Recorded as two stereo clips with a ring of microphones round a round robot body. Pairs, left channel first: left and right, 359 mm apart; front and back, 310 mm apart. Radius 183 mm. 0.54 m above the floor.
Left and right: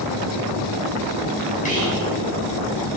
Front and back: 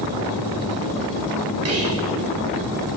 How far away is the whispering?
About 2 m.